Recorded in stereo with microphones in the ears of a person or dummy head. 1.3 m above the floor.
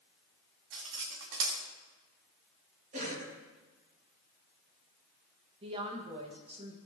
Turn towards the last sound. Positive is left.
turn(degrees=-30)  # may be behind; listen again after turning